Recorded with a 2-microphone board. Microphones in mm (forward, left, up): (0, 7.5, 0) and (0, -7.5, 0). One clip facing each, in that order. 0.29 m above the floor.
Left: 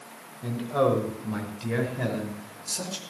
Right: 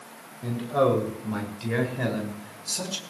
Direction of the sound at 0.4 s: Centre (ahead or behind).